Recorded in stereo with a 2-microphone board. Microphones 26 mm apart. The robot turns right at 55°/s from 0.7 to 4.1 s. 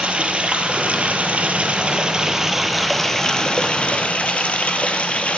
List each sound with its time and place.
0.0 s running water: 115° right, 0.9 m; by 5.4 s 75° left, 0.9 m